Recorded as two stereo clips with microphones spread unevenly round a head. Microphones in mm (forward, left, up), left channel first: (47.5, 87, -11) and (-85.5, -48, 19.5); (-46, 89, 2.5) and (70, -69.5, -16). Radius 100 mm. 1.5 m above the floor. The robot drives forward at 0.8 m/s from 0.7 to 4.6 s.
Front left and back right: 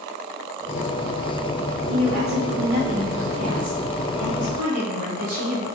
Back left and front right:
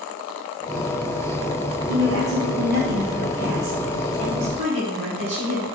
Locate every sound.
1.9 s a woman speaking: 80° right, 3.5 m; by 5.7 s 115° right, 4 m